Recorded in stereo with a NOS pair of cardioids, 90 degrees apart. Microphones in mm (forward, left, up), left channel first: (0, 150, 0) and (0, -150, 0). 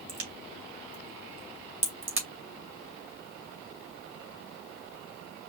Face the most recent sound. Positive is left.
turn(degrees=-45)